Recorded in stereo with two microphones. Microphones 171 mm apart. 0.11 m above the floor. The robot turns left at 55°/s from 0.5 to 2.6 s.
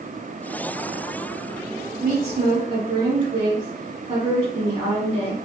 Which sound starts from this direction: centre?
A woman speaking, at 2.0 s.